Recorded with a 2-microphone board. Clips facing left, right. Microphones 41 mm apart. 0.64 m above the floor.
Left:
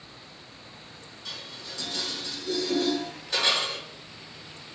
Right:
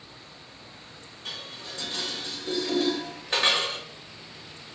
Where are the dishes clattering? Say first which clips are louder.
Right 2 dB; 45° right (ahead or behind), 1.7 m.